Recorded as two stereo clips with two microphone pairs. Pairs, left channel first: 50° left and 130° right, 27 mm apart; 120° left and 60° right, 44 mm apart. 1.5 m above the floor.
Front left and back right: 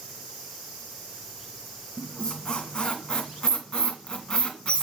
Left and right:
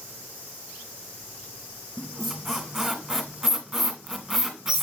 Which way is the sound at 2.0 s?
20° left.